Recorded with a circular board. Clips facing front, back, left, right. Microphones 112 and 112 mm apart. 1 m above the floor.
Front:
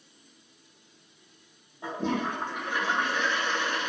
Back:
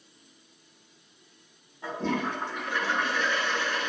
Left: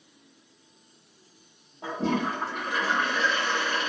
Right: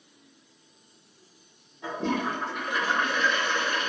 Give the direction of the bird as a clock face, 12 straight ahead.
No bird in this recording.